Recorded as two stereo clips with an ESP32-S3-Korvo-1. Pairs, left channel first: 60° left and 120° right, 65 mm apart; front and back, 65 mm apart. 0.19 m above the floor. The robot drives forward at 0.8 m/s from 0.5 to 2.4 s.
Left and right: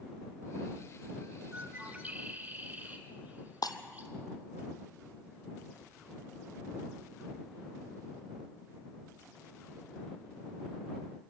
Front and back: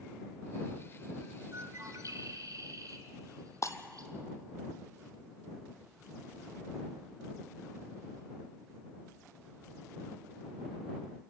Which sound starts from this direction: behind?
A bird, at 1.5 s.